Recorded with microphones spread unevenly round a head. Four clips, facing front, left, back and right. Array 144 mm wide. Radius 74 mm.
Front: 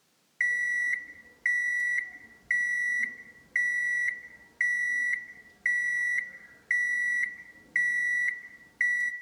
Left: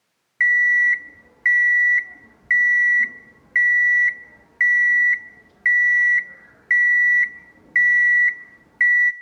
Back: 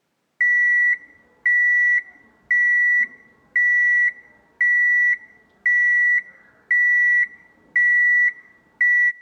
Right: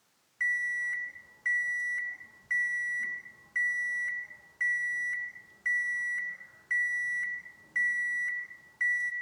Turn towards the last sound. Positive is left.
turn(degrees=95)